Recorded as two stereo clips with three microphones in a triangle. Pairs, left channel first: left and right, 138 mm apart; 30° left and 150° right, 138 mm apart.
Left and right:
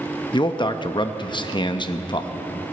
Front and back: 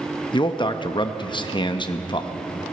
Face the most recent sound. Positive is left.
turn(degrees=60)